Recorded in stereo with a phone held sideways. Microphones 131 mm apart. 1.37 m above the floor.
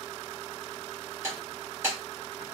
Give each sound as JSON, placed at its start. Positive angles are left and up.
{"t": 1.2, "sound": "breaking glass", "side_deg": -20, "distance_m": 2.5}